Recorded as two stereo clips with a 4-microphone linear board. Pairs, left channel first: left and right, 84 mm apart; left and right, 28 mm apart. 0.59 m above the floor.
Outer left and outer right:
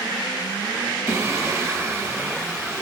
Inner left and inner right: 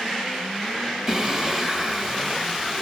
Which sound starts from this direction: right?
Singing, at 1.1 s.